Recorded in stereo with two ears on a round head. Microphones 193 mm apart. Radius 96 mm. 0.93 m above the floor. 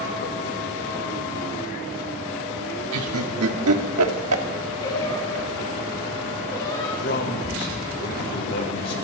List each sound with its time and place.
2.9 s laughter: 75° right (ahead or behind), 1.6 m
4.8 s singing: 20° left (ahead or behind), 5 m
7.0 s a man speaking: 55° left (ahead or behind), 3.5 m